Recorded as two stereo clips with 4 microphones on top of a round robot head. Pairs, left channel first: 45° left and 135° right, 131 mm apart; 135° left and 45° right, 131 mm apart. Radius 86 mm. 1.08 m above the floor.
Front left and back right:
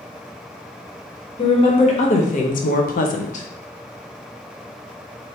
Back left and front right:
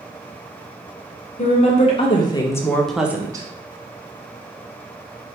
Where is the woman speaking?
95° left, 1.4 m; by 3.5 s 15° left, 0.8 m.